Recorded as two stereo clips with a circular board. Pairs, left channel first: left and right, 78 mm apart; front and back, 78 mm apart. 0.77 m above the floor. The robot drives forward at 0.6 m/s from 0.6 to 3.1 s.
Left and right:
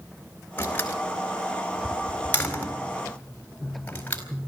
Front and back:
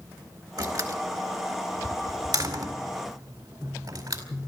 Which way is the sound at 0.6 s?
150° left.